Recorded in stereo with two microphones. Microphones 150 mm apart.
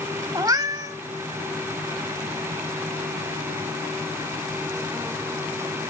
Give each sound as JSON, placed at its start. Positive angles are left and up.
{"t": 0.3, "sound": "a cat meowing", "side_deg": -25, "distance_m": 0.8}